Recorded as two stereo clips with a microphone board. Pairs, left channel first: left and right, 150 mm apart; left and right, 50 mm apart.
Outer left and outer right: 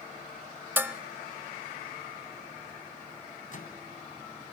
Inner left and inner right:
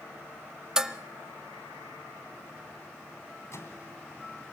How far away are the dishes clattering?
About 0.8 m.